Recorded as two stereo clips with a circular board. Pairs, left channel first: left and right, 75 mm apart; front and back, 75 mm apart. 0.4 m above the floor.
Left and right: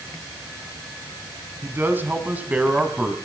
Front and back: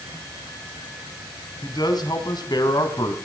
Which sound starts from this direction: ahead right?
A man speaking, at 1.6 s.